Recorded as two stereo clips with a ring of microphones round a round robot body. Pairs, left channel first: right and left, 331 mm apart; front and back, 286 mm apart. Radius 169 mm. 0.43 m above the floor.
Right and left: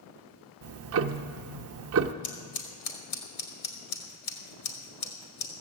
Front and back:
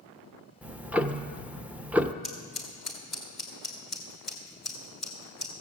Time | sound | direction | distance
0.6 | ticking | 95° left | 0.6 m
2.2 | scissors | 90° right | 2 m